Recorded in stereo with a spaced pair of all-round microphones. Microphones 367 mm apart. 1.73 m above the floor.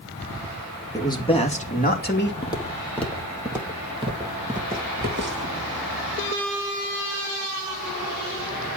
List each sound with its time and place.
0.9 s a man speaking: 10° left (ahead or behind), 2.5 m; by 2.3 s 30° left (ahead or behind), 3 m
2.4 s footsteps: 10° left (ahead or behind), 2.5 m; by 5.6 s 35° right (ahead or behind), 3 m